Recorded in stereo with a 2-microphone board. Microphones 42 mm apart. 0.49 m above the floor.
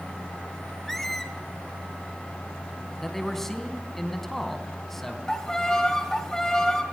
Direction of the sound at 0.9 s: 5° left (ahead or behind).